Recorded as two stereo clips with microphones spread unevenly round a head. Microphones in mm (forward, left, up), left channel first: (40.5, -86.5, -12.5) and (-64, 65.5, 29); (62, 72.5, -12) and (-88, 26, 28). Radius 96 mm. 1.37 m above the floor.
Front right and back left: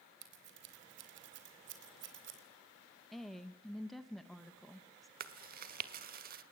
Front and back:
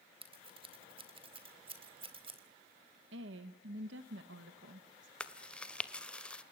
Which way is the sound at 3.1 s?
145° right.